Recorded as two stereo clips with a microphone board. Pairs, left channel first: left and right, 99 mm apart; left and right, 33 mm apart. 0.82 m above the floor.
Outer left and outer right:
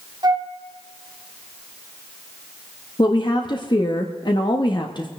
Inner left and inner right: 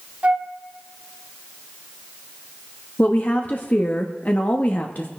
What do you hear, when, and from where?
0.2 s a flute: 45° right (ahead or behind), 1.3 m
3.0 s a woman speaking: 50° left (ahead or behind), 1.3 m